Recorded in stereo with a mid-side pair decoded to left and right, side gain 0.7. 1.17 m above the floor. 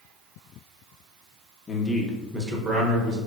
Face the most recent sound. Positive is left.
turn(degrees=-45)